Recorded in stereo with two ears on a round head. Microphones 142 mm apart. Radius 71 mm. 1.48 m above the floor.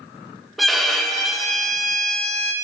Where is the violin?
Centre (ahead or behind), 1.1 m.